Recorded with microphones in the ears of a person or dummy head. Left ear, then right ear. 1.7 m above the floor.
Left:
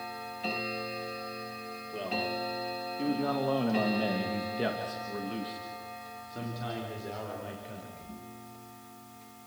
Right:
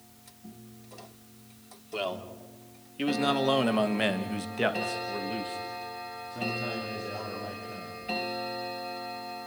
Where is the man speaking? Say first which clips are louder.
Left 1 dB; 60° right (ahead or behind), 4 m; by 8.0 s 20° left (ahead or behind), 6 m.